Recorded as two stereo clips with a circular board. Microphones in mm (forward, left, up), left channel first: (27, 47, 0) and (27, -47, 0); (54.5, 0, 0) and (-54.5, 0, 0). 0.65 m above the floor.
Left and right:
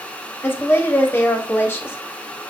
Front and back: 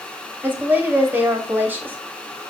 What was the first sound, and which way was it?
A woman speaking, 130° left.